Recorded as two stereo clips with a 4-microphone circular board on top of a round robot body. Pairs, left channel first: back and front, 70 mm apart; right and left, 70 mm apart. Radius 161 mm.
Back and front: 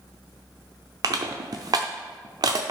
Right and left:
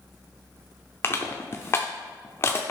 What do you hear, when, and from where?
1.0 s crushing: 30° right, 0.6 m